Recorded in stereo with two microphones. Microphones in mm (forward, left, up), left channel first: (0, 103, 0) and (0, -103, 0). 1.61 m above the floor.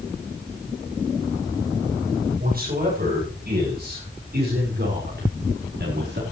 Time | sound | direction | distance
2.4 | a man speaking | 45° right (ahead or behind) | 8.5 m